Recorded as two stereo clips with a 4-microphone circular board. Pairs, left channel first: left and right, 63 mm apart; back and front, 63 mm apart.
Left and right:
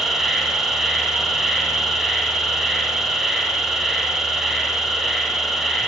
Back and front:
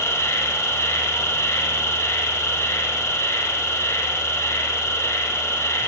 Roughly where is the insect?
Behind.